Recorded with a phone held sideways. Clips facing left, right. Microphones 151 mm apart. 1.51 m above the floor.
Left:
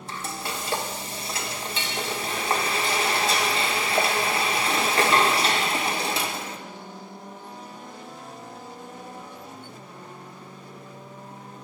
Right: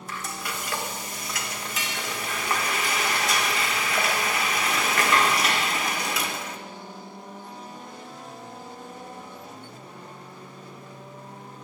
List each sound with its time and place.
0.1 s frying: 30° left (ahead or behind), 1.4 m